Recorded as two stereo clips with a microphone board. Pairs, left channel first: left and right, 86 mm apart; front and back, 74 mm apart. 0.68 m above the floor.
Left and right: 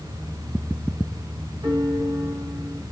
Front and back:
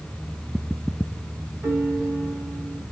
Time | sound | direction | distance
1.6 | a piano | 130° right | 3.5 m